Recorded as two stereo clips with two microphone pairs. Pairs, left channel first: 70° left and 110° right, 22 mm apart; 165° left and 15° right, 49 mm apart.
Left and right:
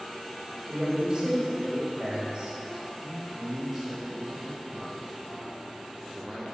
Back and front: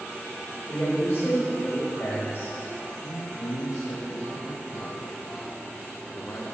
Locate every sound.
0.7 s a woman speaking: 170° right, 3 m
3.0 s a man speaking: 170° left, 0.9 m